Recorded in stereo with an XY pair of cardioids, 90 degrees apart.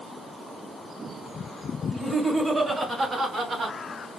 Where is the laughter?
10° right, 1.6 m; by 3.8 s 65° right, 1.6 m.